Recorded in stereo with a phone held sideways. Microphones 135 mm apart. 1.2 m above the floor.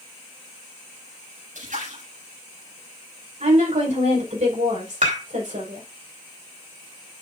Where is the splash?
80° right, 8 m.